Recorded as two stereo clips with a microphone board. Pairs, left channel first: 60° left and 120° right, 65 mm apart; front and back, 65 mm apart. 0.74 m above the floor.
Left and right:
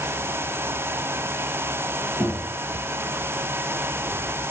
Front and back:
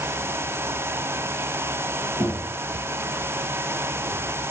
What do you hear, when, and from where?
2.2 s knocking: straight behind, 5.5 m